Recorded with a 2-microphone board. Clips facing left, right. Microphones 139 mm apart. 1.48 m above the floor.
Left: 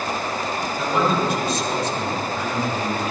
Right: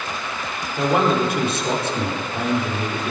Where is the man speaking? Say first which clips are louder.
Right 3 dB; 65° right (ahead or behind), 5 m.